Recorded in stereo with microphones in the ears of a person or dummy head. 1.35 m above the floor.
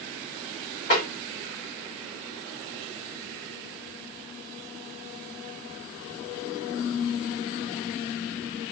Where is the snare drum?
35° left (ahead or behind), 1.5 m.